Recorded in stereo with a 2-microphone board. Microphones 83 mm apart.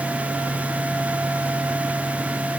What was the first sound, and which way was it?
Only background noise.